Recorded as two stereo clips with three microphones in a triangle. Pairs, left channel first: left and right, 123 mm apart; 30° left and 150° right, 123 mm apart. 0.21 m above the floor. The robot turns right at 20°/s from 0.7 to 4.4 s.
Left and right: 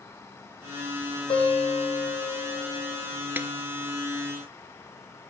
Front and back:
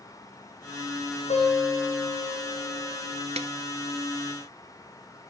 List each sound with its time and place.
1.3 s a guitar: 45° left, 5 m; by 3.1 s 80° left, 5 m
3.4 s a snare drum: 165° right, 0.8 m; by 3.5 s 160° right, 0.8 m